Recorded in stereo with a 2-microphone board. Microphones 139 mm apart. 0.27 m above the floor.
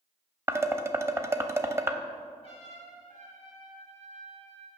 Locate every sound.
0.5 s dishes clattering: 20° right (ahead or behind), 0.6 m
2.4 s a trumpet: 45° left (ahead or behind), 4 m